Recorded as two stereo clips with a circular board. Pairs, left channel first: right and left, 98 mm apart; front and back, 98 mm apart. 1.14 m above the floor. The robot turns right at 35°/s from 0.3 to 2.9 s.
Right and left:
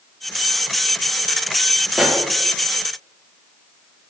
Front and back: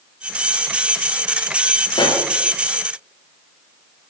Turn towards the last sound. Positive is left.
turn(degrees=35)